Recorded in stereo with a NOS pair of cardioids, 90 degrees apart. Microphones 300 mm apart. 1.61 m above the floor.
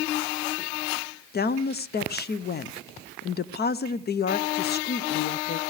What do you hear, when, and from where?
1.3 s a woman speaking: 35° left, 0.7 m